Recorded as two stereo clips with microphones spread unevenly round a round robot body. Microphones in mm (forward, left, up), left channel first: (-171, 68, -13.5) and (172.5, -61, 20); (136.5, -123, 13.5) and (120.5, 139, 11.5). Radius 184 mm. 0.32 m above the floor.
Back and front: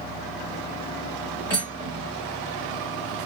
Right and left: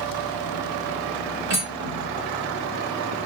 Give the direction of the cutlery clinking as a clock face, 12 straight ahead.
9 o'clock.